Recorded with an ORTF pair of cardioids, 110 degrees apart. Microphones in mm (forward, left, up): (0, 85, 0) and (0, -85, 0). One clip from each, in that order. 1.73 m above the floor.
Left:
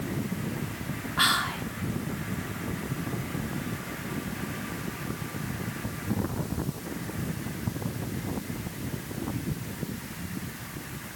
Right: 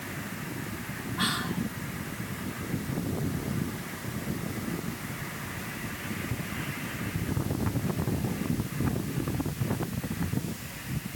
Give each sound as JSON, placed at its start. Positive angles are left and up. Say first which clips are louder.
{"t": 1.2, "sound": "whispering", "louder": "left 6 dB", "azimuth_deg": 55, "distance_m": 0.6}